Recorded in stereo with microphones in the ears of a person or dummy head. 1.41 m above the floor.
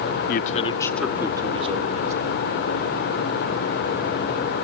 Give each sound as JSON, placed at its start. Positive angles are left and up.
{"t": 0.3, "sound": "a man speaking", "side_deg": 45, "distance_m": 1.2}